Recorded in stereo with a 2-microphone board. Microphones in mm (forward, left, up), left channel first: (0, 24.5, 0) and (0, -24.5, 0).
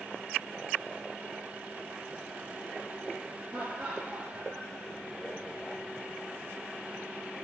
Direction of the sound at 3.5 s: 5° right (ahead or behind).